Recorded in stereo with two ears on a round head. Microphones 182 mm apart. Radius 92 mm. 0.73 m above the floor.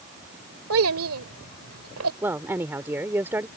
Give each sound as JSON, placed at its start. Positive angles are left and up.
{"t": 0.7, "sound": "a child speaking", "side_deg": -80}
{"t": 2.2, "sound": "a woman speaking", "side_deg": -10}